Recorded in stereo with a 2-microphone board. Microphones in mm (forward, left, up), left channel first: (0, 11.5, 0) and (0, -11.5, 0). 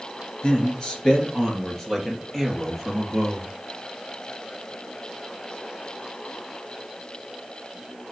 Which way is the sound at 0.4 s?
40° left (ahead or behind).